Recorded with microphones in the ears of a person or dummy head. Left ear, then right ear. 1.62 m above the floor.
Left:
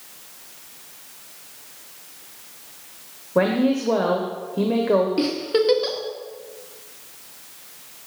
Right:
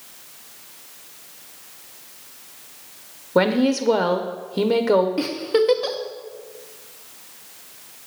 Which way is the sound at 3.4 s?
75° right (ahead or behind).